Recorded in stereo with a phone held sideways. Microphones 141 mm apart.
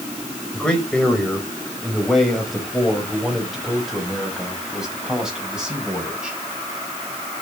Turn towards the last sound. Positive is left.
turn(degrees=-5)  # may be behind; listen again after turning